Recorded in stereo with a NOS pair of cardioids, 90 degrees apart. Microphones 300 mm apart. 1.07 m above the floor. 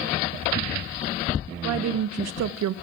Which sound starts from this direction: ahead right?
A woman speaking, at 1.6 s.